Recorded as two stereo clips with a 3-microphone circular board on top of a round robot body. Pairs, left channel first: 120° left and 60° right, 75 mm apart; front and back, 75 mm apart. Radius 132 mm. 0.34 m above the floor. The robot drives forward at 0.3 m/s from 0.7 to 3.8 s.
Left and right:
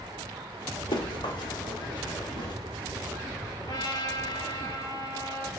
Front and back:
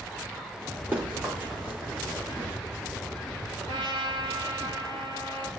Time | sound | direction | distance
0.9 | running footsteps | 110° left | 5 m
3.6 | a trumpet | 150° left | 4.5 m